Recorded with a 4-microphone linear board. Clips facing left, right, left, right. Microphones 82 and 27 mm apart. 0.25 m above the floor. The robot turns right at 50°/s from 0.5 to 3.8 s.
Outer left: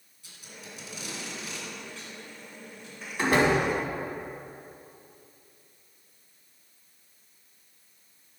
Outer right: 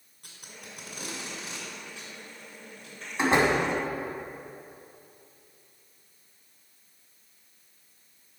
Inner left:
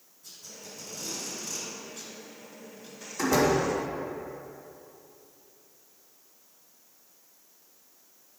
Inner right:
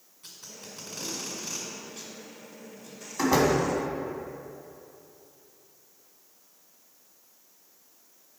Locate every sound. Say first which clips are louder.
0.2 s tape being pulled: outer left 1 dB, inner right 1 dB; 60° right (ahead or behind), 2 m; by 3.0 s 30° left (ahead or behind), 2 m
3.2 s a door slam: even, inner right 1 dB; 20° right (ahead or behind), 1.6 m; by 3.5 s 35° right (ahead or behind), 1.6 m